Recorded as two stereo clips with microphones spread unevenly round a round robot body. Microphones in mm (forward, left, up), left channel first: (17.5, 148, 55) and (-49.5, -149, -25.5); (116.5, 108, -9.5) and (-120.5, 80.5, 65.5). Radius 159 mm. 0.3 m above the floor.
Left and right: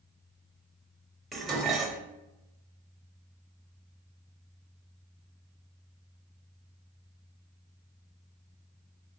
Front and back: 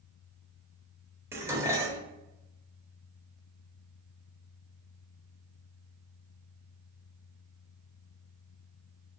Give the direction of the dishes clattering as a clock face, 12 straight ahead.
2 o'clock.